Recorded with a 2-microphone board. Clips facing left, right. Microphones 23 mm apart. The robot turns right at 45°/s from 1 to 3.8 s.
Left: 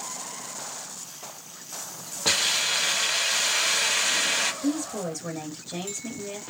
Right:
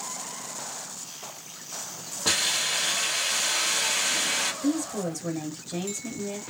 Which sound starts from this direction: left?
A hiss, at 2.2 s.